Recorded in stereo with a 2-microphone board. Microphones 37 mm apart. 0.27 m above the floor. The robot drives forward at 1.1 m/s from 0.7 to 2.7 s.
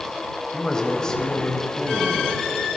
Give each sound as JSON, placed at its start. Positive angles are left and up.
{"t": 0.5, "sound": "a man speaking", "side_deg": 20, "distance_m": 1.0}